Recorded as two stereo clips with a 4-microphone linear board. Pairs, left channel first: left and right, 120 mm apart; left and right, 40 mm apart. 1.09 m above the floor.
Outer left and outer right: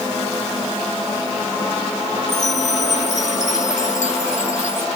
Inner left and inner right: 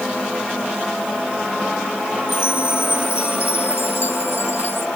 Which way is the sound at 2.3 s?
85° left.